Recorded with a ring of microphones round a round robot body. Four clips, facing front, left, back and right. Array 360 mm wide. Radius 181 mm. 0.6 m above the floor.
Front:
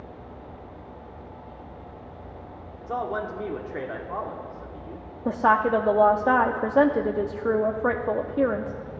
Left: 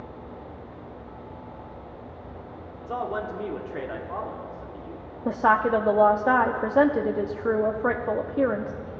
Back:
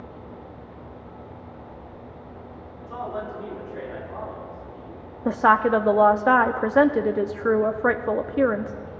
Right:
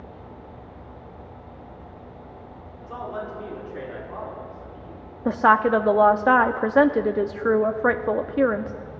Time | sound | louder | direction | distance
2.8 | a man speaking | left 3 dB, front 3 dB | 35° left | 1.9 m
5.2 | a woman speaking | right 3 dB, back 2 dB | 130° right | 0.6 m